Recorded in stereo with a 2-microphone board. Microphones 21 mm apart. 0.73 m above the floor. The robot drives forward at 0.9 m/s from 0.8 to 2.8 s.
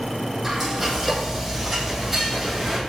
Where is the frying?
10° right (ahead or behind), 8 m.